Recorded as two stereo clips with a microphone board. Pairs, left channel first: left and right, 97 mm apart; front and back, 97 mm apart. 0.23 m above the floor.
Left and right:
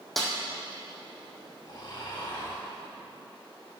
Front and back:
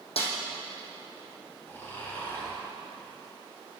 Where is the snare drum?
5° left, 1.7 m.